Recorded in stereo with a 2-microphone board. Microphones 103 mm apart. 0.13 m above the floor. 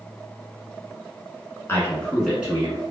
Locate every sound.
1.7 s a man speaking: 25° left (ahead or behind), 1.1 m; by 2.8 s 30° right (ahead or behind), 1.2 m